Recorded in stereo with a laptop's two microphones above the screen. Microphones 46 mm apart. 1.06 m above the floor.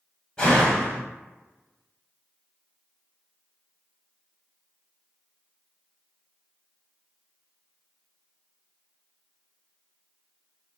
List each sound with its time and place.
0.4 s a door slam: 15° left (ahead or behind), 2 m